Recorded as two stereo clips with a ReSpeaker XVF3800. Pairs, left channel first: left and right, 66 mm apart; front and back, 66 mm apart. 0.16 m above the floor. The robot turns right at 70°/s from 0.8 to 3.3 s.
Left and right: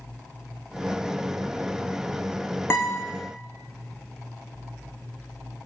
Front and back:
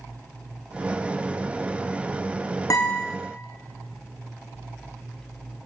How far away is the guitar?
About 3.5 m.